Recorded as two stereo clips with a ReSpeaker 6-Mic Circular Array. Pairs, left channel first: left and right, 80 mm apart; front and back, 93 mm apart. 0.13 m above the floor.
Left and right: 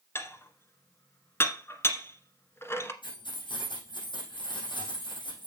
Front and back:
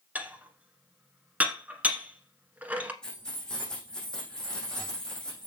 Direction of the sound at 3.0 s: 80° left.